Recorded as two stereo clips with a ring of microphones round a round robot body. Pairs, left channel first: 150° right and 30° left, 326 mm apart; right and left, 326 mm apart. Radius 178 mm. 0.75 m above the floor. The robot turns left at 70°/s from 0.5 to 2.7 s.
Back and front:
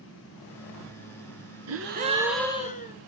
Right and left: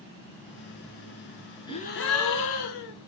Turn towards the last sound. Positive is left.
turn(degrees=-85)